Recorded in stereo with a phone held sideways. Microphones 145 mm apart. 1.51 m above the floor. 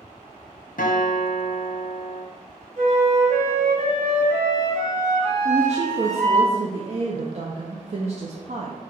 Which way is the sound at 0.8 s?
80° left.